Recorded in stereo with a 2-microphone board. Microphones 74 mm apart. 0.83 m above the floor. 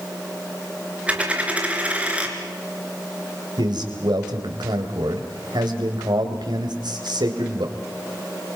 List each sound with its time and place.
1.1 s a dropped coin: 20° right (ahead or behind), 3.5 m
3.6 s a man speaking: 80° right, 3.5 m